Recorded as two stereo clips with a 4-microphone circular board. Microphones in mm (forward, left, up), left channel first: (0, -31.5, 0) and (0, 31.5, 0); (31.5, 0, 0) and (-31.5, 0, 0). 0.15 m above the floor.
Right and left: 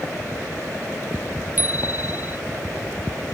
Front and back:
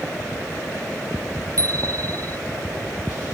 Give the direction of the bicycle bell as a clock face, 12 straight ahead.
7 o'clock.